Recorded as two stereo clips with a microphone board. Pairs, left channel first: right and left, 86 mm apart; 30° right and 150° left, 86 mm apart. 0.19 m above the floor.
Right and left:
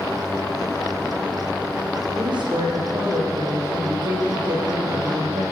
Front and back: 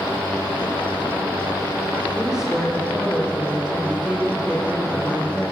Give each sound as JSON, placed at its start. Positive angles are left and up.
{"t": 2.1, "sound": "a woman speaking", "azimuth_deg": 65, "distance_m": 9.5}